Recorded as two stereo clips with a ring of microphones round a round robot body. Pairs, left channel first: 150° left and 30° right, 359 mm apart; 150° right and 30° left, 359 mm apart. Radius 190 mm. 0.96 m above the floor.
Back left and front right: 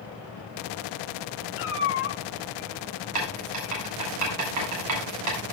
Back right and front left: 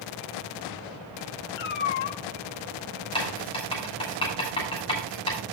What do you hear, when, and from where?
1.6 s a cat meowing: 155° right, 2.5 m
3.1 s writing: 75° right, 8 m